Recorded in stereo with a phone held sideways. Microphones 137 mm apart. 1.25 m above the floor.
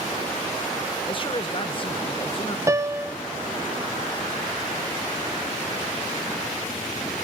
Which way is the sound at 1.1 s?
40° left (ahead or behind).